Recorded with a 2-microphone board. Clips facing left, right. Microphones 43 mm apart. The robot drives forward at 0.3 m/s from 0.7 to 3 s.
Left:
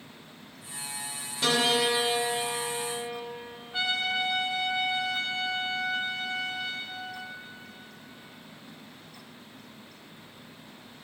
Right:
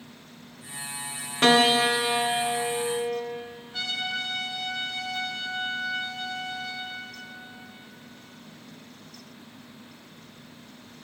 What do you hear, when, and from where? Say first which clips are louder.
1.4 s a piano: right 6 dB; 50° right (ahead or behind), 1.2 m; by 3.2 s 45° right (ahead or behind), 1.3 m
3.7 s a trumpet: left 3 dB; 20° left (ahead or behind), 0.9 m